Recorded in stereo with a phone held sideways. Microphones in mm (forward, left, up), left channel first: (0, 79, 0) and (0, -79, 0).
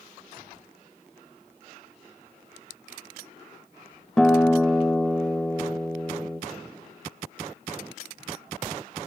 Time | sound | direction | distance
4.2 | a guitar | 5° left (ahead or behind) | 0.8 m